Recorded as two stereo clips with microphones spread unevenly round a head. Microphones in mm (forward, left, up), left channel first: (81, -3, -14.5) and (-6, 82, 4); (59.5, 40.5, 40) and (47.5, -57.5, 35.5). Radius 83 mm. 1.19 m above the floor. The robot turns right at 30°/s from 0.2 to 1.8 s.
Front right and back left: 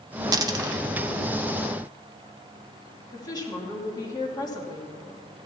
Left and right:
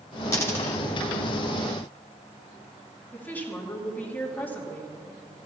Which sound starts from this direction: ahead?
A woman speaking, at 3.1 s.